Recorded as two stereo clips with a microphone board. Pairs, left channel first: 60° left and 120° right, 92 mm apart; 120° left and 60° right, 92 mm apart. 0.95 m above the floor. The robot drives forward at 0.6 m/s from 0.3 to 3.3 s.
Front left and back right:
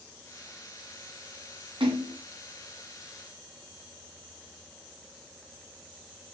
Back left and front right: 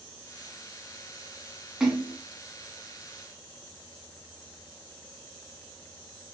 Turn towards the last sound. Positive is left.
turn(degrees=-150)